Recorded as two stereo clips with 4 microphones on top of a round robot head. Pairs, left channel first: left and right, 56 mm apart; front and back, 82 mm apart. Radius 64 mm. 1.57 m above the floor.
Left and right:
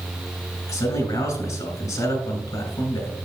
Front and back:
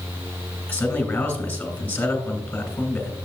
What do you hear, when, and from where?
0.7 s a man speaking: 70° left, 2.5 m